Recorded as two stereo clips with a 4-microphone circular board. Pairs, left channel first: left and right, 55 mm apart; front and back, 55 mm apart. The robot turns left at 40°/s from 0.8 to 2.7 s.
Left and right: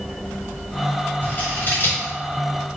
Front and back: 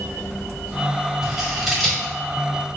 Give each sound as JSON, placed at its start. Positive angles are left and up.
{"t": 1.2, "sound": "scissors", "azimuth_deg": 115, "distance_m": 1.5}